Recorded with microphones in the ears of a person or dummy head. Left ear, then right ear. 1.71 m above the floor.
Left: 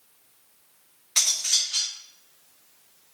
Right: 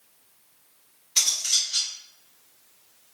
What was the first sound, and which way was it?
Cutlery clinking, 20° left (ahead or behind).